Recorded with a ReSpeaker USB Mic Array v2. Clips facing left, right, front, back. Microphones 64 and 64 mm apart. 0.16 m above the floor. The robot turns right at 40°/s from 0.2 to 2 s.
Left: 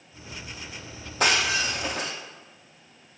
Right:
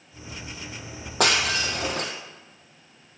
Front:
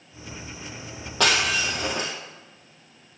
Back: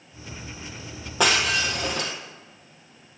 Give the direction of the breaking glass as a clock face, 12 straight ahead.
3 o'clock.